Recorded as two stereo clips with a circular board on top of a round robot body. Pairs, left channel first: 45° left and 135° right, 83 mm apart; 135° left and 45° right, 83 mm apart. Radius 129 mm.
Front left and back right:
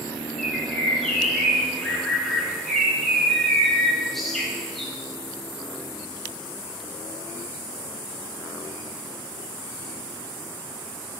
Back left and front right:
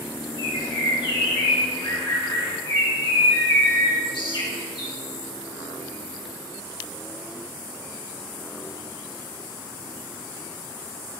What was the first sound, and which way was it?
A bird, 130° left.